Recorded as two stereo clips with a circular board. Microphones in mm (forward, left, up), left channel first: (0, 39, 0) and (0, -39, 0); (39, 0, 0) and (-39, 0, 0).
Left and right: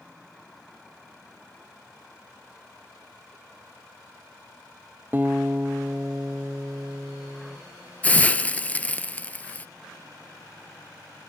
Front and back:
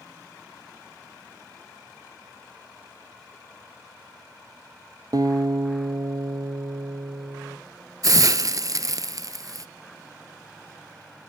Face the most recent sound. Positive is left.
turn(degrees=155)